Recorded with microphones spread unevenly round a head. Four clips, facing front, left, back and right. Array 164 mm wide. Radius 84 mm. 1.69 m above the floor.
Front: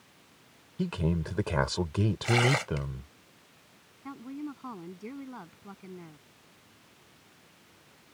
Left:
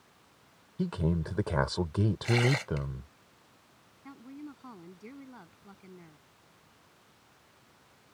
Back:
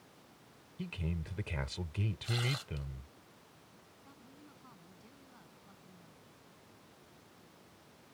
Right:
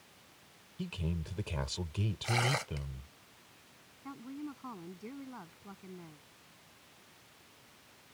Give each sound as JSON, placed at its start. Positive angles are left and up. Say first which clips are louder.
{"t": 0.8, "sound": "a man speaking", "louder": "left 9 dB, front 11 dB", "azimuth_deg": 40}
{"t": 2.2, "sound": "tearing paper", "louder": "left 3 dB, front 15 dB", "azimuth_deg": 0}
{"t": 4.0, "sound": "a woman speaking", "louder": "right 2 dB, front 21 dB", "azimuth_deg": -5}